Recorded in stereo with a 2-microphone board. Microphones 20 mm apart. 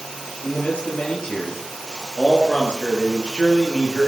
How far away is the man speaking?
About 9 m.